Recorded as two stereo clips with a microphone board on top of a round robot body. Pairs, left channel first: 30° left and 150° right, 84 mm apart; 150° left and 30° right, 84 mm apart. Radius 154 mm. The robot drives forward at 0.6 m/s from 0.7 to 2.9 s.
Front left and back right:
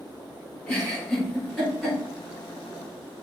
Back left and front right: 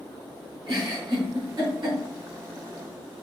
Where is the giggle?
55° right, 5.5 m; by 2.0 s 60° right, 5 m.